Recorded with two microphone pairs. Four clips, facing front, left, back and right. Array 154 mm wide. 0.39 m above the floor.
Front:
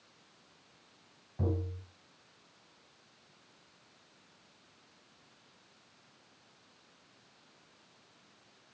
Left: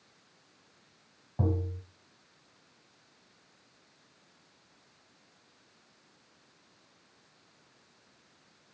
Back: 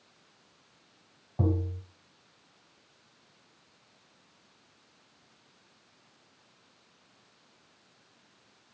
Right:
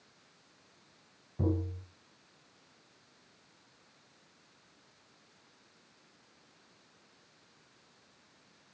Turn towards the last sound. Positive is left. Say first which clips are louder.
# even, back 5 dB
turn(degrees=135)